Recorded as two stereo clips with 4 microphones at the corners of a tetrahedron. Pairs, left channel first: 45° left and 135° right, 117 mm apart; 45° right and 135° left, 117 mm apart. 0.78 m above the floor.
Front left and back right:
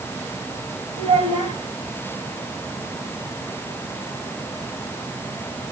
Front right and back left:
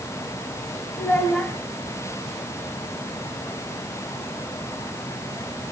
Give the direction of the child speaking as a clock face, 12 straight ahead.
4 o'clock.